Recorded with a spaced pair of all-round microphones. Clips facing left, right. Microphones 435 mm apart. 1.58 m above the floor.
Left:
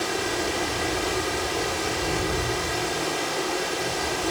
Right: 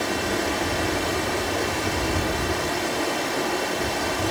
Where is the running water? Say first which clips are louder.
Right 2 dB; 70° right (ahead or behind), 2.5 m.